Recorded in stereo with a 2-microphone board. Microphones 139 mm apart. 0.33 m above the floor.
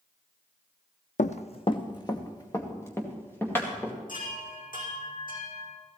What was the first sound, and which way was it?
Running footsteps, 65° left (ahead or behind).